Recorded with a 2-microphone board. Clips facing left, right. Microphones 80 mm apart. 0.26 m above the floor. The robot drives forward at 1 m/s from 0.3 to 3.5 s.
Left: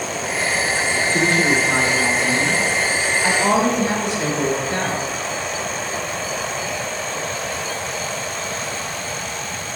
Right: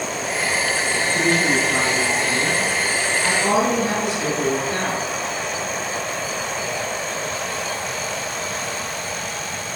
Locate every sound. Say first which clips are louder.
1.1 s a woman speaking: left 1 dB; 45° left (ahead or behind), 2.5 m; by 5.0 s 25° left (ahead or behind), 4 m